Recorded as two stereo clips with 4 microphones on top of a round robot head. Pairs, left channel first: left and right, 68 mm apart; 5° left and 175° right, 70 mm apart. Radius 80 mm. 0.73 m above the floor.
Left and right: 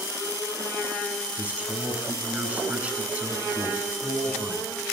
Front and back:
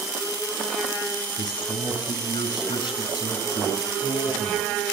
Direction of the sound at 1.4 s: 20° right.